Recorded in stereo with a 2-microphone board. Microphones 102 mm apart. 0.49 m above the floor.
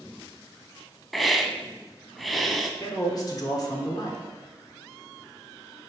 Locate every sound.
1.1 s a hiss: centre (ahead or behind), 0.6 m
2.8 s a man speaking: 40° left (ahead or behind), 1.0 m